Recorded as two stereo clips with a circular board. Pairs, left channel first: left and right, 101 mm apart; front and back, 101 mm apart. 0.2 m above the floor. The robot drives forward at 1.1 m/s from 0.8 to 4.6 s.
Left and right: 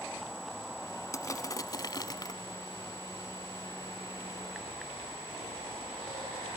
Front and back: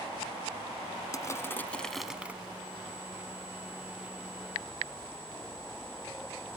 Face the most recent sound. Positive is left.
turn(degrees=165)